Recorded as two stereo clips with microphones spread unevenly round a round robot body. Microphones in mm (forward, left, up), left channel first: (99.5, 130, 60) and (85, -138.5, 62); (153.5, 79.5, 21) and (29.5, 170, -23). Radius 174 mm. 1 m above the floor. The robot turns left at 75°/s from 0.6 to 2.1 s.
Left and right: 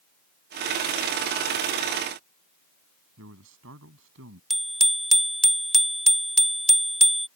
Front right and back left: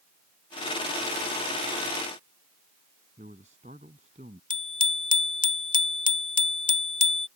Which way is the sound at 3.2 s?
145° right.